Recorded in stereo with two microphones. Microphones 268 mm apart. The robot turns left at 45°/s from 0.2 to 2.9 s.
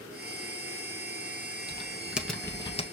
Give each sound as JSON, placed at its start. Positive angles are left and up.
{"t": 1.7, "sound": "typing on a keyboard", "azimuth_deg": -155, "distance_m": 1.2}